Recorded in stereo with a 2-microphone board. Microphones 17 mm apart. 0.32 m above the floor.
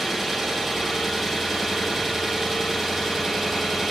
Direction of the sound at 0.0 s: 20° right (ahead or behind).